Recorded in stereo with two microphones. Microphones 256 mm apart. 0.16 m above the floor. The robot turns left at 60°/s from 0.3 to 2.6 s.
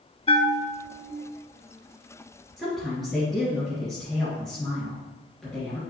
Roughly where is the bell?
Ahead left.